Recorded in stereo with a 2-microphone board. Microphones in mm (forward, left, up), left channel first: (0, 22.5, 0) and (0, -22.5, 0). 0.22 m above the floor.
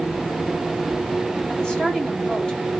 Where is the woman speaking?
15° left (ahead or behind), 1.4 m.